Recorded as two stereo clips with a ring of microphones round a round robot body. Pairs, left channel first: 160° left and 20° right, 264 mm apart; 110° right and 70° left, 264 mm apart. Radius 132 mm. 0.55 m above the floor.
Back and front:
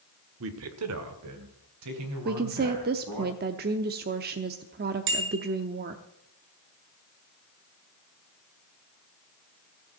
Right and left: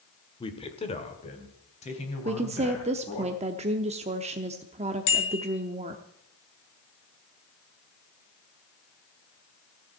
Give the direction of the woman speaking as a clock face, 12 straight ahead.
12 o'clock.